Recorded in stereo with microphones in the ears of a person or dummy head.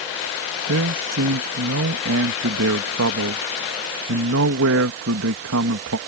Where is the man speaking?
75° right (ahead or behind).